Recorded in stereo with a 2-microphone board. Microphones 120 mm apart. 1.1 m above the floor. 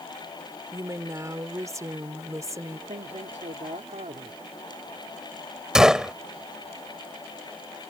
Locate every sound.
0.7 s a woman speaking: 25° right (ahead or behind)
2.9 s a man speaking: 80° right
5.8 s a gunshot: 5° right (ahead or behind)